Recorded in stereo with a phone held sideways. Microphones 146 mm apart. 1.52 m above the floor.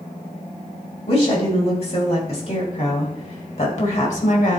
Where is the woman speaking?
45° left (ahead or behind), 3.5 m; by 4.6 s 55° left (ahead or behind), 1.6 m.